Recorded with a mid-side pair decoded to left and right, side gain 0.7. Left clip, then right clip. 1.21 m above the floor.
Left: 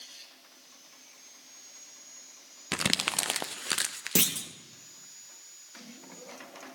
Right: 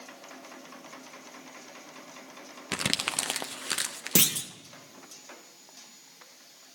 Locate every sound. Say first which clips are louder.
2.7 s crumpling: left 1 dB; 5° left, 0.6 m
4.2 s a clunk: right 3 dB; 15° right, 0.8 m